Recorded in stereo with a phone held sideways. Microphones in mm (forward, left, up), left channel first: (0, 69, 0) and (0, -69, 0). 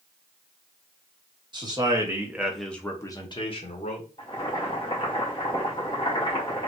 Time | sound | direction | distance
1.5 | a man speaking | 35° right (ahead or behind) | 1.2 m
4.2 | boiling | 40° left (ahead or behind) | 1.6 m